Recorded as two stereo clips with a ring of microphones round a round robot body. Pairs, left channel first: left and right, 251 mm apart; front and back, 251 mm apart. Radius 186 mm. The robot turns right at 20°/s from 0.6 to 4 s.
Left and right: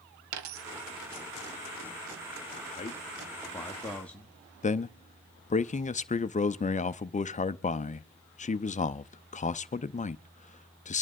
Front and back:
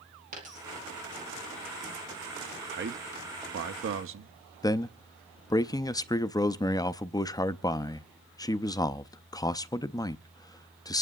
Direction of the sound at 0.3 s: 110° right.